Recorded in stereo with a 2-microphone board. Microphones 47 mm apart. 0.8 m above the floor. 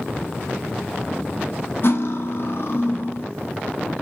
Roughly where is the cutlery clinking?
Left.